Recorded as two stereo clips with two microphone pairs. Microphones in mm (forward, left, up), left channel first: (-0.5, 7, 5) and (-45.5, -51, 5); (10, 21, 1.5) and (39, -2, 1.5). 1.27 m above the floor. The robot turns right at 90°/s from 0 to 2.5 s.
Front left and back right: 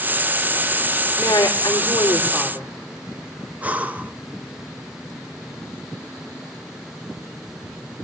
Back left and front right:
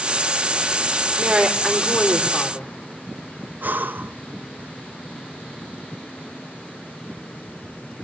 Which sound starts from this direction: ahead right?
Breathing, at 3.6 s.